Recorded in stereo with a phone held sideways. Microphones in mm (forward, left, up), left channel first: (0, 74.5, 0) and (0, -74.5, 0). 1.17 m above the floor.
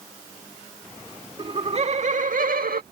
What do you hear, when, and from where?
1.4 s laughter: 35° right (ahead or behind); by 2.8 s 85° right